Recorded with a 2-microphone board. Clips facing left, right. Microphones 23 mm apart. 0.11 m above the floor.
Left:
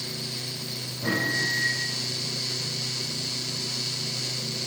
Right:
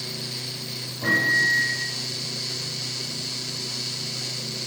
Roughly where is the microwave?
Right.